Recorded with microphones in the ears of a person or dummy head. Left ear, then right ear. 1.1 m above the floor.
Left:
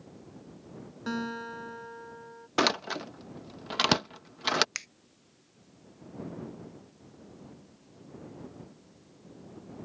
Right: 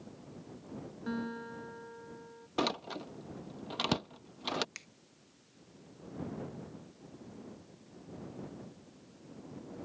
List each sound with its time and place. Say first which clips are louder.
1.1 s a guitar: left 6 dB; 80° left
2.6 s a door slam: left 7 dB; 70° left (ahead or behind)
4.8 s a finger snap: left 11 dB; 65° left (ahead or behind)